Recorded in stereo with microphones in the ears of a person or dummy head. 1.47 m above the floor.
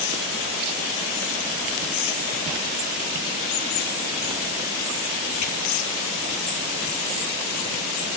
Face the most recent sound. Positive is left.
No sound to turn to.